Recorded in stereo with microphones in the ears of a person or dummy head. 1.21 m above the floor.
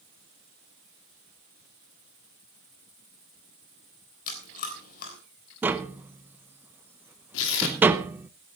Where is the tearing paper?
70° left (ahead or behind), 2.5 m.